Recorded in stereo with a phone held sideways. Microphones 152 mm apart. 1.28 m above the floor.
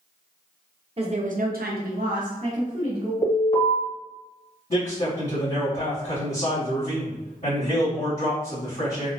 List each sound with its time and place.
1.0 s a woman speaking: 40° right (ahead or behind), 0.6 m; by 3.1 s 45° right (ahead or behind), 1.3 m
3.2 s an alarm: 55° left (ahead or behind), 1.3 m
4.7 s a man speaking: 55° left (ahead or behind), 1.1 m